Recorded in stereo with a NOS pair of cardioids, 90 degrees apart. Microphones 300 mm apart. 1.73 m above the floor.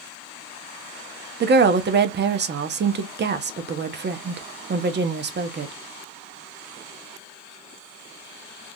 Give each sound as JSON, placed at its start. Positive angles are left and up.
{"t": 1.4, "sound": "a woman speaking", "azimuth_deg": -35, "distance_m": 0.7}